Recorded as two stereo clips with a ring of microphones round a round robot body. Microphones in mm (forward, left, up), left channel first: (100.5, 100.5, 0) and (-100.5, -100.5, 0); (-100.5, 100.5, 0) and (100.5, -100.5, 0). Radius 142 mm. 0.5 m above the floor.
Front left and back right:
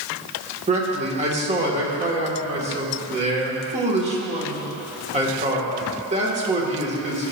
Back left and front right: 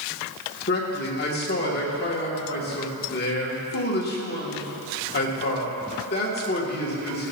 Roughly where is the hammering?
I don't hear hammering.